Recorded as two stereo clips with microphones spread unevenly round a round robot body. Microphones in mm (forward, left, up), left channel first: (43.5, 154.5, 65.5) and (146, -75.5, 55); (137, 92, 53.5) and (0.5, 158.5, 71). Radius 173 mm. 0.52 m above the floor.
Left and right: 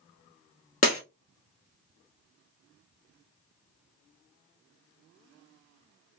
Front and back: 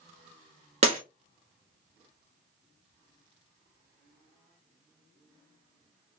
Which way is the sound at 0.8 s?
170° left.